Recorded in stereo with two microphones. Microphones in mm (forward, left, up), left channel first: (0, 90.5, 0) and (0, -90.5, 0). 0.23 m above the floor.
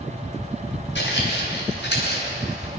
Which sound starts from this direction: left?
Footsteps, at 0.9 s.